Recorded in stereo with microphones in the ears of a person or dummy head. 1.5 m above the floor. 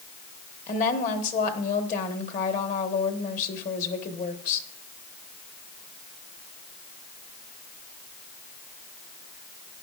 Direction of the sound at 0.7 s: 45° left (ahead or behind).